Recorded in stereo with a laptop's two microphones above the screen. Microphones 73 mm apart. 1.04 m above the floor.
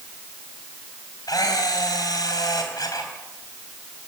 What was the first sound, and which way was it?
A camera shutter, 60° left (ahead or behind).